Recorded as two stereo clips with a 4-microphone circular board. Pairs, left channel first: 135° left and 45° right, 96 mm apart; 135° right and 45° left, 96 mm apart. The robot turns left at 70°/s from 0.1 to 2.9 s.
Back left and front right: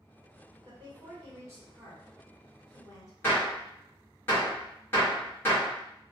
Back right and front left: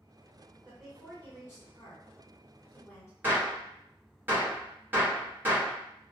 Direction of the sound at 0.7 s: 30° right.